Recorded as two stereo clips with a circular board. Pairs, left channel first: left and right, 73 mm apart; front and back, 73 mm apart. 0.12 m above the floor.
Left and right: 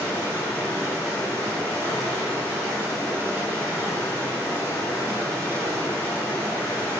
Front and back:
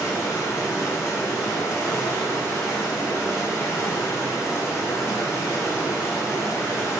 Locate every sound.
0.0 s running water: 25° left, 1.6 m